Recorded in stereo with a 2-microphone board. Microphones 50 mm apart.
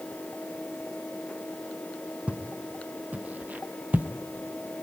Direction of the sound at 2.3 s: 25° right (ahead or behind).